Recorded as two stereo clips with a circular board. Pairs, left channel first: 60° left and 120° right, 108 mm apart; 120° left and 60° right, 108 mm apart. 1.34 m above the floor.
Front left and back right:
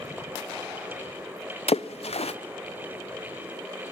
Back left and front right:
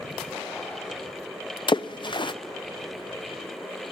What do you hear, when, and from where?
1.7 s a splash: 75° left, 0.6 m